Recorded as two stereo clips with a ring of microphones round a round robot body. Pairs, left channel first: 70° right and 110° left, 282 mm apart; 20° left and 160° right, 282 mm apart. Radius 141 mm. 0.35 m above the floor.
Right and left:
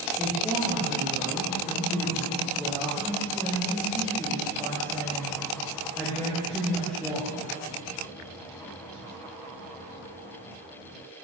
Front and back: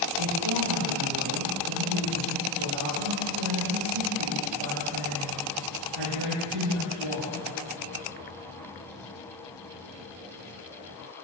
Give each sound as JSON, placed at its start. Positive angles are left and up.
{"t": 0.2, "sound": "a woman speaking", "azimuth_deg": -155, "distance_m": 7.5}